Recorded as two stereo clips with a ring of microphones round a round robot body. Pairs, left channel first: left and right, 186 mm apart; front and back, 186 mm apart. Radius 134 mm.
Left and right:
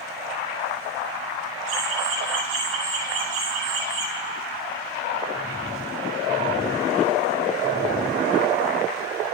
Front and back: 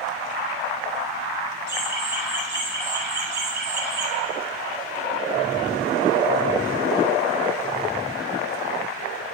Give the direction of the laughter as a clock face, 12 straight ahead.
3 o'clock.